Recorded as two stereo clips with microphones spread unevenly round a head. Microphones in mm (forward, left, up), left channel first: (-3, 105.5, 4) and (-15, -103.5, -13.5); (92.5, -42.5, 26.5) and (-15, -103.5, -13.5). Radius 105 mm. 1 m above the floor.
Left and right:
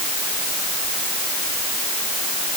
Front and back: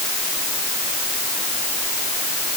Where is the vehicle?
I don't hear a vehicle.